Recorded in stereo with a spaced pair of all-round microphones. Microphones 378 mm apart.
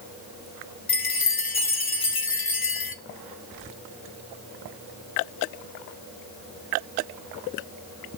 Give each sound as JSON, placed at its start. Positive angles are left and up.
{"t": 0.9, "sound": "a chime", "side_deg": 70, "distance_m": 0.9}